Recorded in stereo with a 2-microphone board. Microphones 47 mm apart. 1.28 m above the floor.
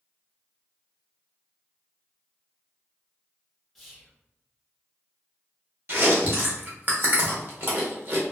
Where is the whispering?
Centre (ahead or behind), 0.9 m.